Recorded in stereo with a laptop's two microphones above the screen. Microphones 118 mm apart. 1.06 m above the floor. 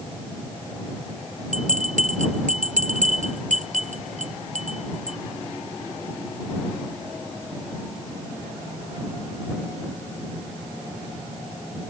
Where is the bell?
75° right (ahead or behind).